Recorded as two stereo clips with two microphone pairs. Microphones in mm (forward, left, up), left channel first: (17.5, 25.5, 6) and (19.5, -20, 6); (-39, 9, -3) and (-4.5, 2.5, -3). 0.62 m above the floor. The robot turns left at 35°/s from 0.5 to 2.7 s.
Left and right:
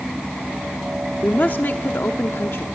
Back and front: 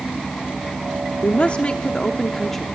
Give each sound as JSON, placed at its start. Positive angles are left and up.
{"t": 1.2, "sound": "a woman speaking", "azimuth_deg": 135, "distance_m": 0.9}